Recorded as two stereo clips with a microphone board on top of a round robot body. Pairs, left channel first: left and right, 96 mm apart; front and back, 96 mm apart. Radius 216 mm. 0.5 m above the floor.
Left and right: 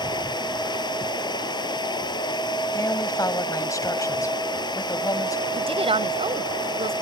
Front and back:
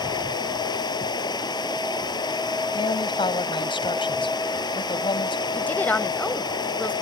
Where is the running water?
45° left.